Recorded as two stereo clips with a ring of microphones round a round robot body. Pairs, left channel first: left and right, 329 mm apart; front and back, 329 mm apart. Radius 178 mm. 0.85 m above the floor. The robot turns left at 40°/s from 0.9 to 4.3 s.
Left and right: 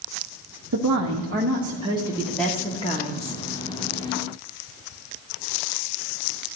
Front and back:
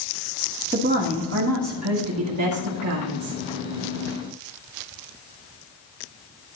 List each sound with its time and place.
0.7 s a woman speaking: 120° right, 1.2 m; by 3.4 s 140° left, 1.2 m